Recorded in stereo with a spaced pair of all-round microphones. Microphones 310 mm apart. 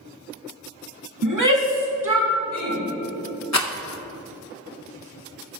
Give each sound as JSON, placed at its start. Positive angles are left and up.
{"t": 1.2, "sound": "a shout", "side_deg": -80, "distance_m": 1.5}
{"t": 3.5, "sound": "a rattle", "side_deg": 60, "distance_m": 0.7}